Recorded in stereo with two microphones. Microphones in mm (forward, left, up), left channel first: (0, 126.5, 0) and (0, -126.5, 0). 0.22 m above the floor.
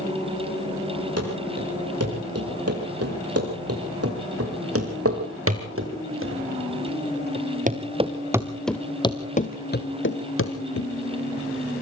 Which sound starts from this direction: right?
Running footsteps, at 1.2 s.